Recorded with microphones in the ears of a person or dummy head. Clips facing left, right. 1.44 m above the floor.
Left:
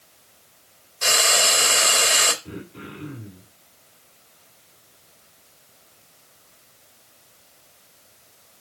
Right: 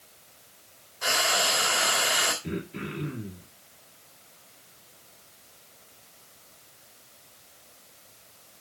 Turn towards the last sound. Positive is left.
turn(degrees=-85)